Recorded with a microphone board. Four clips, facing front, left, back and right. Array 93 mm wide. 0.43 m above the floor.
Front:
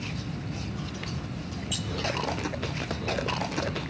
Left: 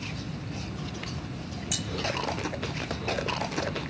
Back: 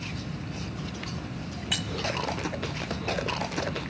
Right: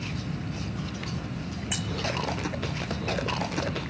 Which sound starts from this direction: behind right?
Keys jangling, at 1.7 s.